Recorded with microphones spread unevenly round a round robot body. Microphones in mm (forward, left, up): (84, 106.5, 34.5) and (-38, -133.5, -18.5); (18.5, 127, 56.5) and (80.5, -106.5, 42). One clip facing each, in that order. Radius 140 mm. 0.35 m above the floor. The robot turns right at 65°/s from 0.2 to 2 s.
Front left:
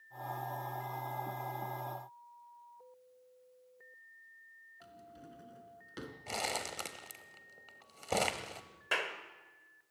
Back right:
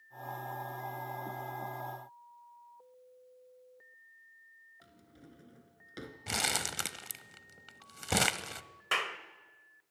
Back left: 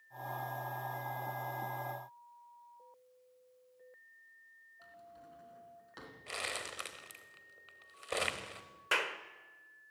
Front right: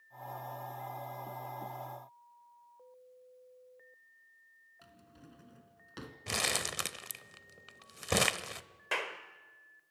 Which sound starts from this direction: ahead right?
A drawer, at 4.8 s.